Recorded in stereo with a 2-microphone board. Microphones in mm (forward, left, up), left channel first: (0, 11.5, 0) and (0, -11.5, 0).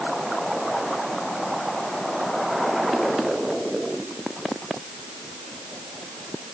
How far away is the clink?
No clink in this recording.